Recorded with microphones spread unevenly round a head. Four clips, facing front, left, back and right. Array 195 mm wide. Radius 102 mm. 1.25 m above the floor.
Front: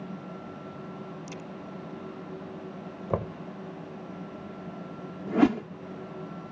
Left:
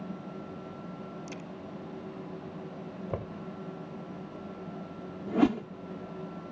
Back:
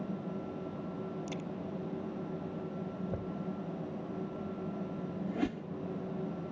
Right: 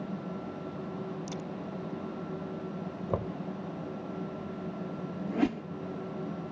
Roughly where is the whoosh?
Ahead.